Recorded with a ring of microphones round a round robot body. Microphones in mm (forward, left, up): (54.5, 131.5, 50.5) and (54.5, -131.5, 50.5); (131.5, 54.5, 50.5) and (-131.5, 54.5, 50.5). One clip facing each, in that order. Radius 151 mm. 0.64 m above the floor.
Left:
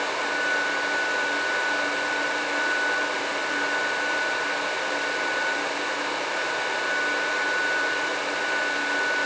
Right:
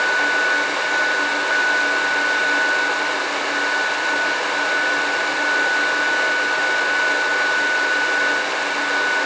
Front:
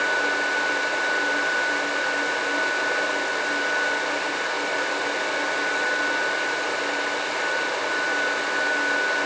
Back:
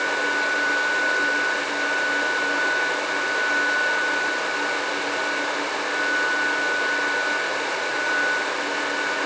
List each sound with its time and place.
Only background noise.